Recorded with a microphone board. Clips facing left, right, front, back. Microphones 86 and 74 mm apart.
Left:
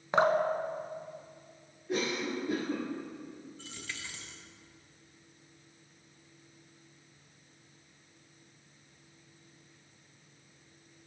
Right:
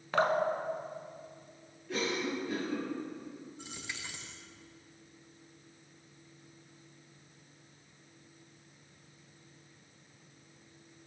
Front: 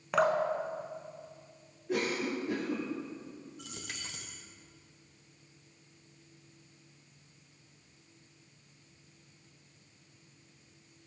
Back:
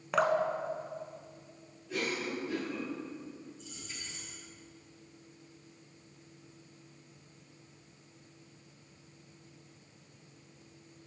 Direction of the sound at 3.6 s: 20° right.